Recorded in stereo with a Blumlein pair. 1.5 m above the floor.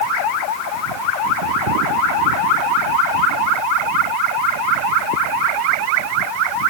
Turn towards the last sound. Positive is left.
No sound to turn to.